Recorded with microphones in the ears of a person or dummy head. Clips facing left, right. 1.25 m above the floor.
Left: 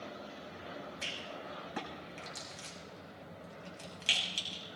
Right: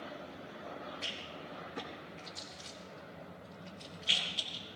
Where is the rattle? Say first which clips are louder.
Left 1 dB; 70° left (ahead or behind), 4 m.